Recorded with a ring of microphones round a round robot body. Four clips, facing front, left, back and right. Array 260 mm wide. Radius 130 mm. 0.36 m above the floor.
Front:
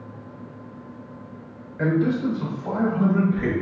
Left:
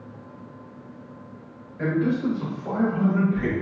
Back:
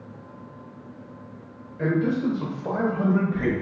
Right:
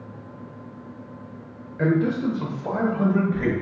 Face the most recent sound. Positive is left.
turn(degrees=-145)